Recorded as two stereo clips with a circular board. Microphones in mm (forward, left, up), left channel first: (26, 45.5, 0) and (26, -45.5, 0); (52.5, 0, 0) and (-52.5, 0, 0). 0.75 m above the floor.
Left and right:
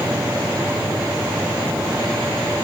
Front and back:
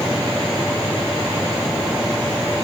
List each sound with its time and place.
Only background noise.